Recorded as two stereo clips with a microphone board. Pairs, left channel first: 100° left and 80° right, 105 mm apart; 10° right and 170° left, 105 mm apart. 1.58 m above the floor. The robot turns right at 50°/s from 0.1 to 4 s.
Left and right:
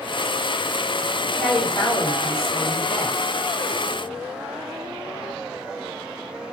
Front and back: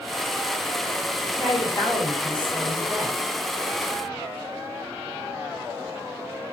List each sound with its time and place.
1.2 s a woman speaking: straight ahead, 2 m; by 3.2 s 95° left, 2 m